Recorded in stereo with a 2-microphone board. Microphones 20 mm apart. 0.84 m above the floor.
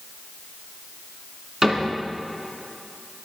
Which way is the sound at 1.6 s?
25° right (ahead or behind).